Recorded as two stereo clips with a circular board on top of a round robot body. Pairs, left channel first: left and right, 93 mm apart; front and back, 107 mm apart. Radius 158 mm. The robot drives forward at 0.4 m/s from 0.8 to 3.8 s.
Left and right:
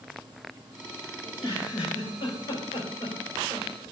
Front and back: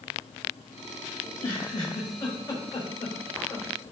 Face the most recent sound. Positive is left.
turn(degrees=65)